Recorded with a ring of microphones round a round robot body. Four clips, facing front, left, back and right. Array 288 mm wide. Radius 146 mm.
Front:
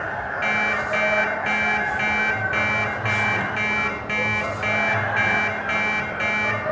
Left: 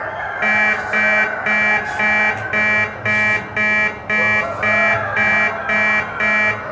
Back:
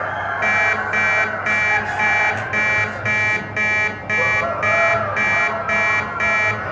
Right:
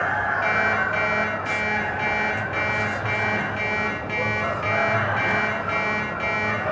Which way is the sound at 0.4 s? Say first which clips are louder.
Left 7 dB, back 3 dB; 105° left.